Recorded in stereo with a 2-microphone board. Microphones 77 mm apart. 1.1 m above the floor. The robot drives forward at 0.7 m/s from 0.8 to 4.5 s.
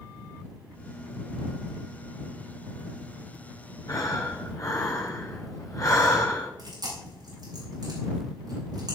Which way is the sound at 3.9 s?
50° left (ahead or behind).